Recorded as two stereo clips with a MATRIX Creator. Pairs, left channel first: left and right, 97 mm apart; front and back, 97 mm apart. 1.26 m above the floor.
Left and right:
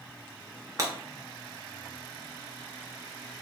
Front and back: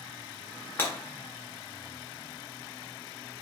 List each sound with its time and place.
0.8 s breaking glass: 55° right, 0.7 m